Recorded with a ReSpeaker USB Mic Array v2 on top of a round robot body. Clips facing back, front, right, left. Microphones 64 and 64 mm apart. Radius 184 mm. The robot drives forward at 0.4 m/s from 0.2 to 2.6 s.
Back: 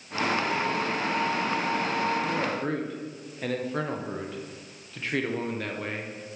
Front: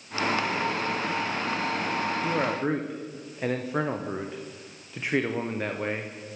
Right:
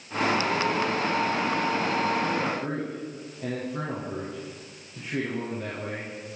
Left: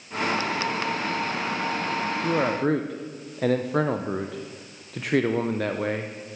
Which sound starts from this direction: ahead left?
A man speaking, at 2.2 s.